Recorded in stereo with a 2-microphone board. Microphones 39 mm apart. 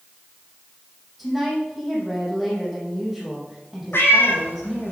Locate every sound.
1.2 s a woman speaking: 5° right (ahead or behind), 5 m
3.9 s a cat meowing: 70° left (ahead or behind), 2 m